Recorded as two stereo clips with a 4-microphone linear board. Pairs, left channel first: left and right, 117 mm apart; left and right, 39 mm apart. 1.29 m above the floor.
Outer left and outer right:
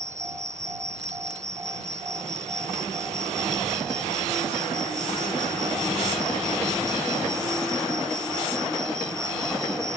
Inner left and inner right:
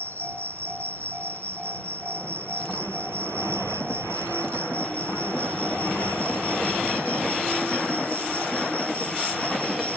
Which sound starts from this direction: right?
An insect, at 0.0 s.